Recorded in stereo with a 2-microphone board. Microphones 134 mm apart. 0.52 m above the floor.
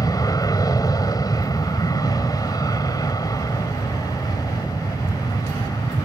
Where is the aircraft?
25° left (ahead or behind).